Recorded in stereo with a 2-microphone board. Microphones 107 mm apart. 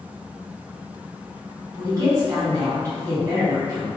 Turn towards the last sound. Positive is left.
turn(degrees=-35)  # may be behind; listen again after turning